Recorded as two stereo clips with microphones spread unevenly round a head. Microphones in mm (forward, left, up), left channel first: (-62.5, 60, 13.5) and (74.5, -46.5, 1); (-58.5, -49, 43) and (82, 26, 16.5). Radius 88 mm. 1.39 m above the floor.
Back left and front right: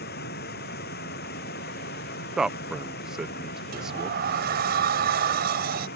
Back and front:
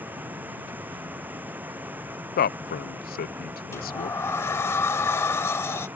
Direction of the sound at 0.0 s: 110° left.